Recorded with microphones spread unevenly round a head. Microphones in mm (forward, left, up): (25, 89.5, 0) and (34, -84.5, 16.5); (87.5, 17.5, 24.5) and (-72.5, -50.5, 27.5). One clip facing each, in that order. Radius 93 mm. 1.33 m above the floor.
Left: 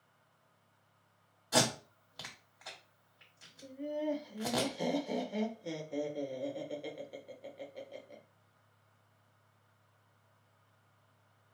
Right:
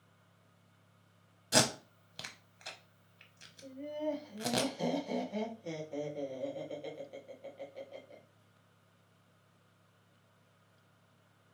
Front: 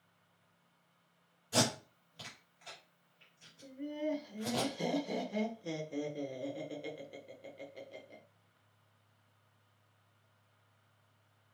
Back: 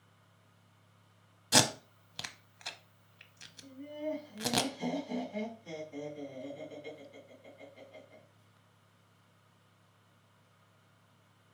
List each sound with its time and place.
1.5 s tape being pulled: 150° right, 0.7 m
3.6 s laughter: 10° left, 1.3 m